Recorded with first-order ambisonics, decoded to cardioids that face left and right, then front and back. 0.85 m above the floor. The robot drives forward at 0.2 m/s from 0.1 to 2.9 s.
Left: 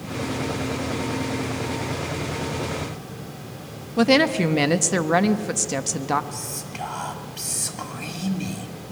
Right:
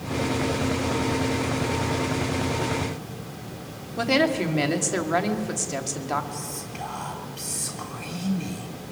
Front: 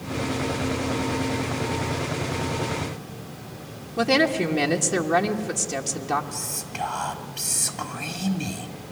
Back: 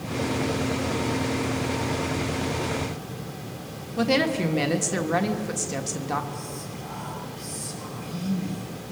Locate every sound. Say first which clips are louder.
4.0 s a woman speaking: left 4 dB, front 3 dB; 85° left, 1.4 m
6.3 s whispering: left 1 dB, front 3 dB; 40° left, 2.5 m